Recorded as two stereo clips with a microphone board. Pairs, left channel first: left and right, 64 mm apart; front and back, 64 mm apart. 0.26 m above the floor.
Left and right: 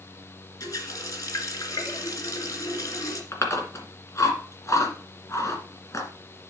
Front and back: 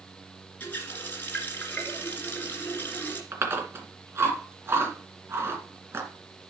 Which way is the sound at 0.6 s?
60° left.